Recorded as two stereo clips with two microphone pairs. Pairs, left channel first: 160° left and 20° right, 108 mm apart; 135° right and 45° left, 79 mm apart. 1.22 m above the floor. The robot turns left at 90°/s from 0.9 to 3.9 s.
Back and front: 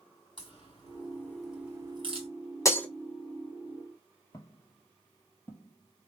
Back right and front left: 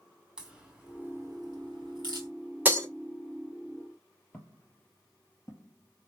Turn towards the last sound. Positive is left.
turn(degrees=-135)